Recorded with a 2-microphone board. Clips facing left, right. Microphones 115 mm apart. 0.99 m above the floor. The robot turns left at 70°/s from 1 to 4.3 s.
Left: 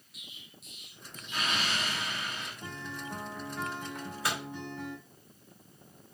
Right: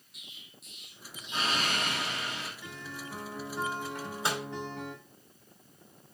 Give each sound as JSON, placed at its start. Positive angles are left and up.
{"t": 0.1, "sound": "an explosion", "azimuth_deg": 0, "distance_m": 1.9}
{"t": 2.6, "sound": "a guitar", "azimuth_deg": 40, "distance_m": 1.9}
{"t": 4.0, "sound": "a microwave", "side_deg": 0, "distance_m": 2.5}